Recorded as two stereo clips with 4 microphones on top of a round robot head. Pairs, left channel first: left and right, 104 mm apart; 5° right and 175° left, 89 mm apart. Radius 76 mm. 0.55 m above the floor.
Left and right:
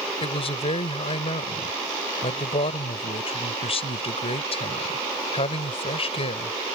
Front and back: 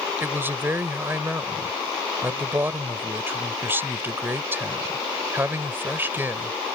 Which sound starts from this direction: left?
A man speaking, at 0.2 s.